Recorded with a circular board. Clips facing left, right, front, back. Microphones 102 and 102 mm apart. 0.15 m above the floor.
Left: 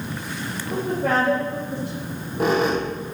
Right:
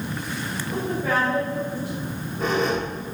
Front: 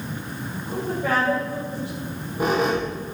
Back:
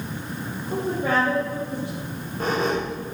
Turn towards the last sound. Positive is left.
turn(degrees=75)